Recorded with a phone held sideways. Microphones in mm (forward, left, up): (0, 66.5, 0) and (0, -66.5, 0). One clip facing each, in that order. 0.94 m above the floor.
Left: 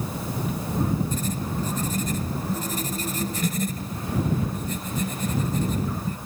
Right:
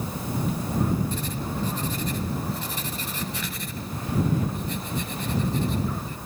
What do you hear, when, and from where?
1.1 s writing: 45° left (ahead or behind)